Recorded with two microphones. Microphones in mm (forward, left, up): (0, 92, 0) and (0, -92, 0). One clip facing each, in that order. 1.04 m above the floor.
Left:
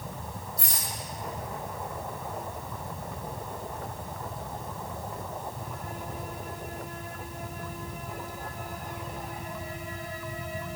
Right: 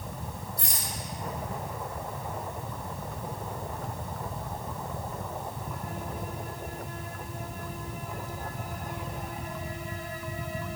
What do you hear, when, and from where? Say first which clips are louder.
0.6 s a rattle: even; 60° right (ahead or behind), 2.0 m